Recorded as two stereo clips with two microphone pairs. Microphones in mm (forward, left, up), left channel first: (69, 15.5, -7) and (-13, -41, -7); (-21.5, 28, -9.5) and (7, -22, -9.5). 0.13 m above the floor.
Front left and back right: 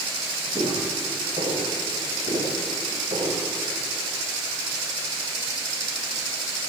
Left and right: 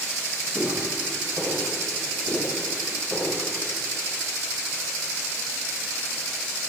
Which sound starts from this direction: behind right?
Footsteps, at 0.6 s.